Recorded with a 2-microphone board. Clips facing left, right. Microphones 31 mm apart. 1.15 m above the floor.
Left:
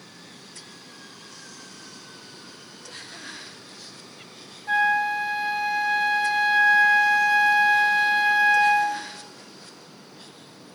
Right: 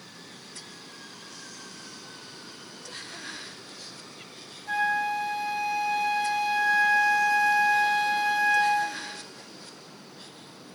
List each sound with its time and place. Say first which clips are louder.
4.7 s a flute: left 5 dB; 20° left (ahead or behind), 0.9 m